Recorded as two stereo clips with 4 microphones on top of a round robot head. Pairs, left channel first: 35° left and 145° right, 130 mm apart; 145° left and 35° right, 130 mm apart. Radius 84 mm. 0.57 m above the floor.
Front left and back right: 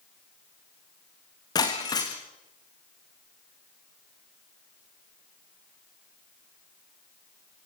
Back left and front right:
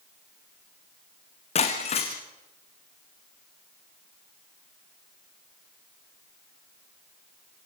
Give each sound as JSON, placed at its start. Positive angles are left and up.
{"t": 1.6, "sound": "breaking glass", "azimuth_deg": 100, "distance_m": 4.0}